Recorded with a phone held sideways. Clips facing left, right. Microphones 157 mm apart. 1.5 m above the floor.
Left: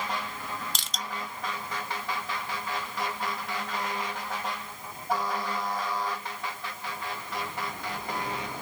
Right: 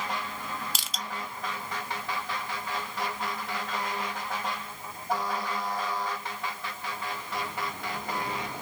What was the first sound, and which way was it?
Crushing, 5° right (ahead or behind).